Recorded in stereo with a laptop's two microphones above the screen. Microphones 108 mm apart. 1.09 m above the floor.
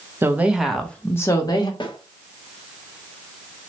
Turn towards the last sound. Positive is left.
turn(degrees=45)  # may be behind; listen again after turning